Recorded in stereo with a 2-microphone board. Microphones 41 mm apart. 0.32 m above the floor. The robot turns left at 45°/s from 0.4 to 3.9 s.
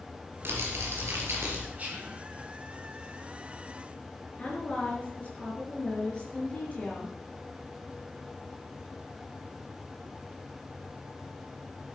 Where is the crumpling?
60° right, 4 m; by 1.7 s 110° right, 4 m.